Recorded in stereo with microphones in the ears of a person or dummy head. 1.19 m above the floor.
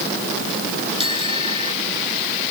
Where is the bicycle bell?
30° left (ahead or behind).